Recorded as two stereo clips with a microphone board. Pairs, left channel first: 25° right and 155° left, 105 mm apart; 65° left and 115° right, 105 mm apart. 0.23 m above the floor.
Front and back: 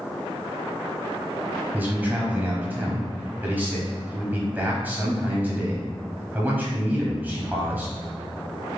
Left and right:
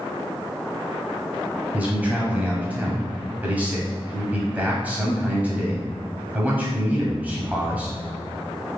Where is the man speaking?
160° right, 1.0 m.